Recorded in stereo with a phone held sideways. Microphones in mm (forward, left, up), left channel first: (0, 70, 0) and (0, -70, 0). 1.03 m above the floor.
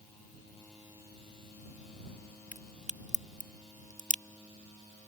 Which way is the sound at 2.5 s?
60° right (ahead or behind).